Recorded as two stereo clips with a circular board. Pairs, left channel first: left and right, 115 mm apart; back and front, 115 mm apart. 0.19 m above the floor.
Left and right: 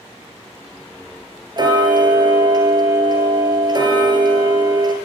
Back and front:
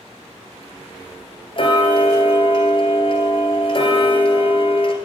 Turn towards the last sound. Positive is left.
turn(degrees=-140)